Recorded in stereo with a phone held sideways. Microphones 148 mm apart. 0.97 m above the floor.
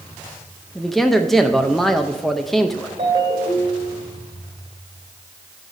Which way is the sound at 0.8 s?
Centre (ahead or behind).